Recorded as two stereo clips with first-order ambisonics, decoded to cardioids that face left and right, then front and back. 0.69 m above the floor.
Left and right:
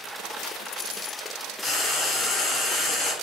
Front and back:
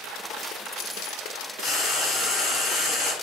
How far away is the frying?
About 1.1 m.